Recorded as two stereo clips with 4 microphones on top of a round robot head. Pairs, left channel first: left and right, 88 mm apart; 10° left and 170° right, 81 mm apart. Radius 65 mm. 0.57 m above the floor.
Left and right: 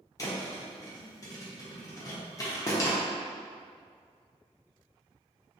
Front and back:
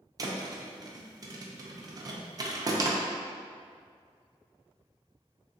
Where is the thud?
145° left, 0.5 m.